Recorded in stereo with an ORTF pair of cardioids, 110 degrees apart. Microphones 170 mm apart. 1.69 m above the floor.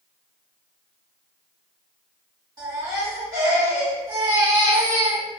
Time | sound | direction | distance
2.6 | a baby crying | 25° right | 1.9 m